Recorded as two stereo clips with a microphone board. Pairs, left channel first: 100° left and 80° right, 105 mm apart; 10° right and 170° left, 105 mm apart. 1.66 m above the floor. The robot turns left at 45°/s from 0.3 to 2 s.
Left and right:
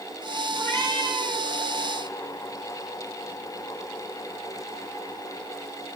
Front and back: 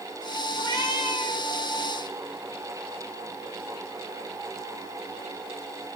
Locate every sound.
0.6 s a cat meowing: 150° left, 1.4 m; by 1.5 s 110° left, 1.4 m